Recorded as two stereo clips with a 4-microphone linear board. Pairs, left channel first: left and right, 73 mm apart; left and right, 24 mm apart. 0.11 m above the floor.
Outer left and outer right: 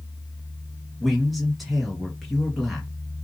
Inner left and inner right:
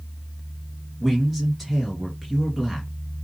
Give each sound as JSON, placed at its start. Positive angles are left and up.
{"t": 1.0, "sound": "a man speaking", "side_deg": 0, "distance_m": 2.0}